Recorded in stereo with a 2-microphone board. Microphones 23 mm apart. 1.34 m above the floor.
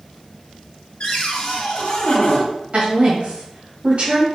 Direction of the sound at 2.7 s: 60° right (ahead or behind).